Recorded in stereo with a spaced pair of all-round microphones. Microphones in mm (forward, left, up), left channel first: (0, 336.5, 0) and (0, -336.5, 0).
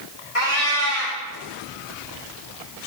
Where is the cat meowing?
60° left (ahead or behind), 1.2 m.